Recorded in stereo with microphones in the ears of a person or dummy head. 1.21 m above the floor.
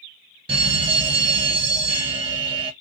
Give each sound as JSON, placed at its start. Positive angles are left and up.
{"t": 0.5, "sound": "a fire alarm", "side_deg": -30, "distance_m": 1.8}